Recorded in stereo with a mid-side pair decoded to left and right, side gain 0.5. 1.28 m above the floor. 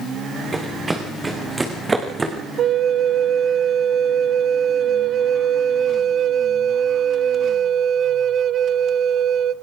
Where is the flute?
50° right, 0.7 m.